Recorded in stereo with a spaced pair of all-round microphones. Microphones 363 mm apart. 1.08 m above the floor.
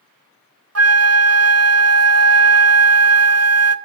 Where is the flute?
45° right (ahead or behind), 0.7 m.